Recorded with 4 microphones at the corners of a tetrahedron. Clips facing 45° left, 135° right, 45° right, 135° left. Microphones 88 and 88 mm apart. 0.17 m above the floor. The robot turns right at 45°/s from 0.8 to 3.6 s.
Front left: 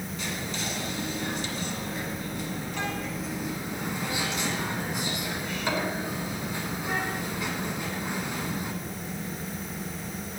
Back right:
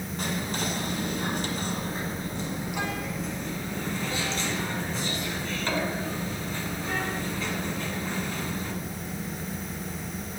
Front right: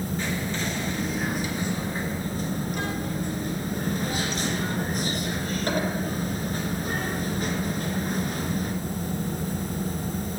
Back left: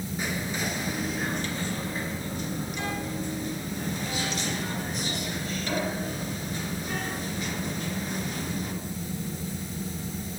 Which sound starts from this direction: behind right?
Whispering, at 0.2 s.